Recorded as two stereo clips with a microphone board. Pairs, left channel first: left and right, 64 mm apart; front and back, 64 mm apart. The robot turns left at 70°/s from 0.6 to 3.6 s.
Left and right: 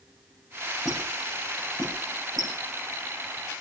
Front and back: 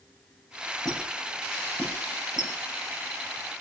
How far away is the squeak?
About 8.5 m.